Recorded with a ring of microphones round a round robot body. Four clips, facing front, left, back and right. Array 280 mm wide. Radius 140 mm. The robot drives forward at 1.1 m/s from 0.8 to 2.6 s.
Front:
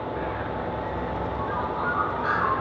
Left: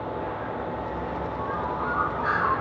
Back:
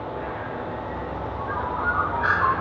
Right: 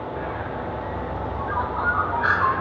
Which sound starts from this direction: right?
A bird, at 0.2 s.